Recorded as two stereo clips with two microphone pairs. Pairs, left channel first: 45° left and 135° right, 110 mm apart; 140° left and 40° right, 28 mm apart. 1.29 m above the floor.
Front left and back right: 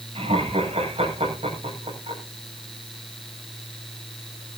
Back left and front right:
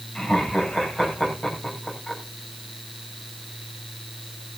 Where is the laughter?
160° right, 8.5 m.